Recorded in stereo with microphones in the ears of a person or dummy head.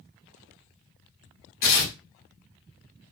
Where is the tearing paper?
45° left (ahead or behind), 1.2 m.